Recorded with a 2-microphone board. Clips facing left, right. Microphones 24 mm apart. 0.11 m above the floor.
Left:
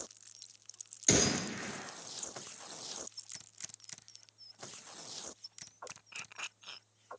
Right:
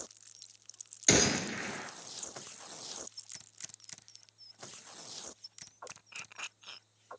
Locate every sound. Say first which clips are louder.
1.1 s a gunshot: right 3 dB; 25° right (ahead or behind), 1.0 m